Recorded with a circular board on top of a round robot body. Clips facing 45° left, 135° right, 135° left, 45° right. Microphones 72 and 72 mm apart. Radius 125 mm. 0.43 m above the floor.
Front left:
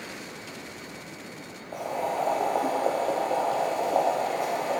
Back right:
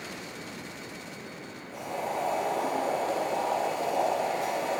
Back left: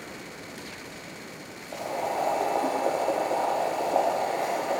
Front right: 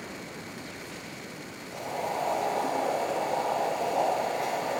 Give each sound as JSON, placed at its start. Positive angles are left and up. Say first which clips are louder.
{"t": 1.7, "sound": "boiling", "louder": "front left 4 dB, back left 3 dB", "azimuth_deg": 80, "distance_m": 1.4}